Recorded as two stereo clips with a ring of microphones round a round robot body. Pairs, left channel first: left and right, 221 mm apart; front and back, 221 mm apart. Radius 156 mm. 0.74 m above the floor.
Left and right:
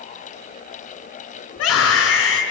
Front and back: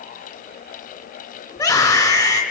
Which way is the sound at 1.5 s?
75° left.